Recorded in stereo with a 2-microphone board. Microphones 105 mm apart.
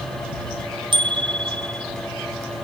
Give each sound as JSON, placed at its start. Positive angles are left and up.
{"t": 0.9, "sound": "a bicycle bell", "side_deg": -50}